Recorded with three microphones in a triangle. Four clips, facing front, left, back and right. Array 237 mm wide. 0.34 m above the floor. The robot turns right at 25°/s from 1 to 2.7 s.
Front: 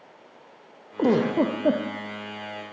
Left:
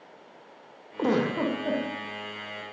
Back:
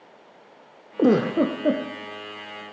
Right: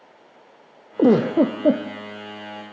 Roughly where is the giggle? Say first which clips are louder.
Right 9 dB, back 2 dB; right.